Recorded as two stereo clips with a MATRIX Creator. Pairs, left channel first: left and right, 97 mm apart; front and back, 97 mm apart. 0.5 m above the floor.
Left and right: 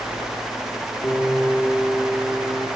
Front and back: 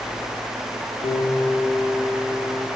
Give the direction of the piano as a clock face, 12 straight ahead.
12 o'clock.